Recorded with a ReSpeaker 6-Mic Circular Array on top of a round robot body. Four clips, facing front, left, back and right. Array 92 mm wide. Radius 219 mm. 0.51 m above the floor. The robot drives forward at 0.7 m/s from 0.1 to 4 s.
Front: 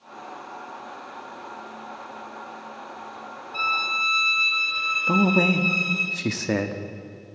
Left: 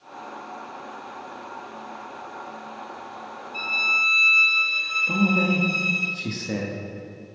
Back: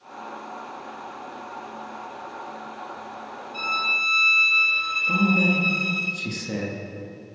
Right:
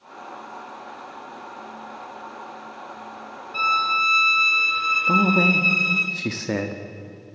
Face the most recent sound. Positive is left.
turn(degrees=-30)